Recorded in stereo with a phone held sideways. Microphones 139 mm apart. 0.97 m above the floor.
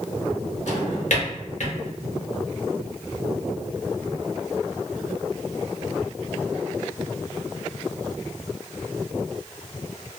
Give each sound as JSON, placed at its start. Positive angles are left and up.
{"t": 0.7, "sound": "a drawer", "side_deg": 65, "distance_m": 1.0}